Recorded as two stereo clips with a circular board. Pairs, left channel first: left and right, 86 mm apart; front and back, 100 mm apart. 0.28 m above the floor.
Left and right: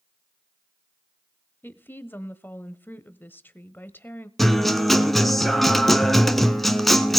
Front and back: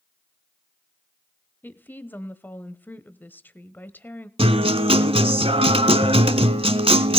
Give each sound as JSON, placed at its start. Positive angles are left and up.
{"t": 1.6, "sound": "a woman speaking", "azimuth_deg": 50, "distance_m": 1.0}
{"t": 4.4, "sound": "a guitar", "azimuth_deg": 175, "distance_m": 1.2}